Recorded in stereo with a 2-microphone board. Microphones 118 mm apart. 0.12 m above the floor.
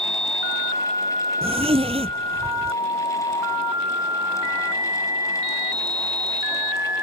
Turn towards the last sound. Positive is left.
turn(degrees=-60)  # may be behind; listen again after turning